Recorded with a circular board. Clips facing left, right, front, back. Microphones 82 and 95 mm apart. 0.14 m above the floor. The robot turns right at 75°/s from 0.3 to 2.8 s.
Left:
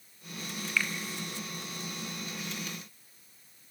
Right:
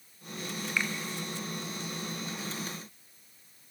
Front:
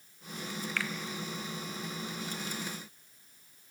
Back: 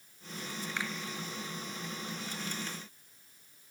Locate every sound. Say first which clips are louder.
0.8 s a finger snap: left 1 dB, front 1 dB; 140° right, 1.3 m; by 0.9 s 130° right, 1.3 m